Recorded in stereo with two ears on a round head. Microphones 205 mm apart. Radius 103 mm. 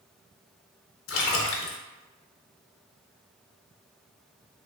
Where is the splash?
60° left (ahead or behind), 0.5 m.